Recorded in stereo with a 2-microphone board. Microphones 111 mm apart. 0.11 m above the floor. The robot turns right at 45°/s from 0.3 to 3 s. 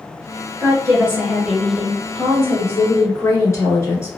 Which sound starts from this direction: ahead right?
A woman speaking, at 0.6 s.